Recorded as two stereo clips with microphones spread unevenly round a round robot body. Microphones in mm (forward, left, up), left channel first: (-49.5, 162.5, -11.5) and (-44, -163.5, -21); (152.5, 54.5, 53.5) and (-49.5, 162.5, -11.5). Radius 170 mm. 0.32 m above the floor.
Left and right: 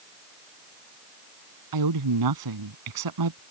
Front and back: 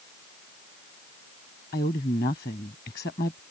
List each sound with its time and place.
1.7 s a woman speaking: 95° right